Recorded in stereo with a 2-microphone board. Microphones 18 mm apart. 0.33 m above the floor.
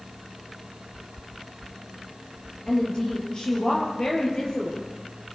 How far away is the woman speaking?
About 8.5 m.